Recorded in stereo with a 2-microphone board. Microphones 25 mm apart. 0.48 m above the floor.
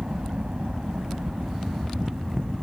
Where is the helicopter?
60° right (ahead or behind); by 2.6 s 65° right (ahead or behind).